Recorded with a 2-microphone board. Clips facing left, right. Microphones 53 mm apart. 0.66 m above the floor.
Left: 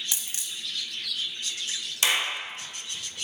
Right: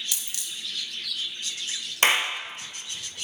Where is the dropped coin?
25° left (ahead or behind), 0.6 m.